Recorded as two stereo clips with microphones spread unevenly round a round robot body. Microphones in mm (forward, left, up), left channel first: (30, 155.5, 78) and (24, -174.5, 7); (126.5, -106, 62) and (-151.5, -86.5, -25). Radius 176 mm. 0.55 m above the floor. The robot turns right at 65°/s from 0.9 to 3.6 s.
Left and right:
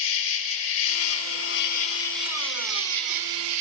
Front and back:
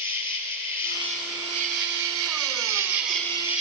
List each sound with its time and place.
0.0 s an insect: 80° left, 3 m; by 3.6 s 105° right, 3 m